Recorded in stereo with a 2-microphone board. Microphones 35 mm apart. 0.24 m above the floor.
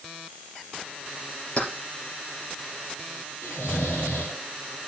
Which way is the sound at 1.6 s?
30° left (ahead or behind).